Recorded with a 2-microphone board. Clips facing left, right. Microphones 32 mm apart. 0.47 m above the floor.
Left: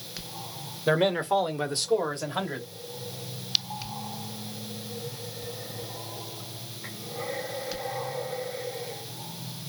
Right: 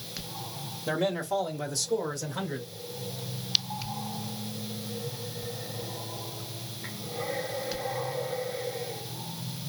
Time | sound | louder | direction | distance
0.9 | a man speaking | left 5 dB | 40° left (ahead or behind) | 1.1 m